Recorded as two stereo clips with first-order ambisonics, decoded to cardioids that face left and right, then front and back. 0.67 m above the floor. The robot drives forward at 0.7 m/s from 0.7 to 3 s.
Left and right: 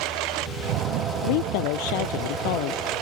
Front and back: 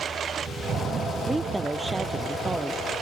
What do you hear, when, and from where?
0.0 s a lawn mower: 115° right; by 3.0 s 120° right
1.2 s a woman speaking: 95° left; by 2.8 s 100° left